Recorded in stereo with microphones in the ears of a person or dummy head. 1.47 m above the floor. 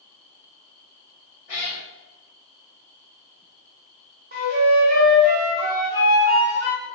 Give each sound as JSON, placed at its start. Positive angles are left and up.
{"t": 1.5, "sound": "a cat meowing", "side_deg": 40, "distance_m": 0.9}
{"t": 4.3, "sound": "a flute", "side_deg": -45, "distance_m": 0.8}